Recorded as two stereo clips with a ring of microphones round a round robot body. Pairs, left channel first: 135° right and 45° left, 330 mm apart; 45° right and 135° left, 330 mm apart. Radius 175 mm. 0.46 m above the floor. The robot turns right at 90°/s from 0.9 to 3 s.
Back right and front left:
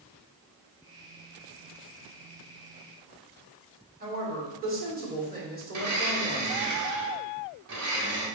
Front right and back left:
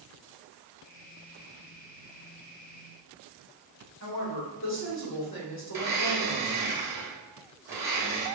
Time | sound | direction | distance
4.0 | a woman speaking | 10° right | 1.8 m
5.7 | a blender | 55° left | 1.6 m